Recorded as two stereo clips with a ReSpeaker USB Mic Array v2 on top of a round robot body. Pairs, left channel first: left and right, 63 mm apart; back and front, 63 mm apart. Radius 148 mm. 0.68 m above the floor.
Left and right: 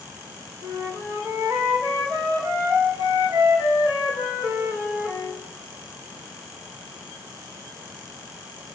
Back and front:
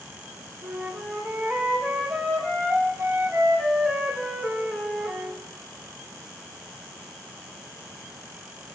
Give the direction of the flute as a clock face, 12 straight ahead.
3 o'clock.